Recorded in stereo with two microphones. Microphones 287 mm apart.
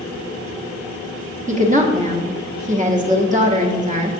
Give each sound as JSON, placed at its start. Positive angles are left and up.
{"t": 1.5, "sound": "a woman speaking", "side_deg": -25, "distance_m": 1.1}